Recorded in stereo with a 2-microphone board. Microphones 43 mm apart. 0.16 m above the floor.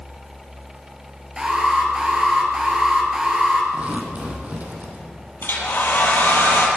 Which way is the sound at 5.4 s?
60° left (ahead or behind).